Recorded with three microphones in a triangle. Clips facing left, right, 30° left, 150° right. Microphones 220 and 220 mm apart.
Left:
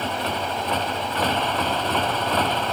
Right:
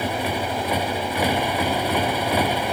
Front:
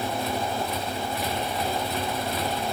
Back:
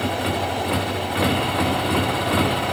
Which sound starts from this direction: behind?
A motorcycle, at 0.0 s.